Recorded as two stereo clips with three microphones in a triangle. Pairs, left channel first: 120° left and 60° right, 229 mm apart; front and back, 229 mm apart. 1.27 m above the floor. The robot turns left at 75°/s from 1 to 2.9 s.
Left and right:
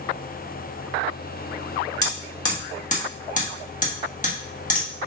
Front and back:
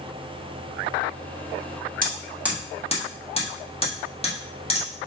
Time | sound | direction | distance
2.0 | hammering | 130° left | 1.5 m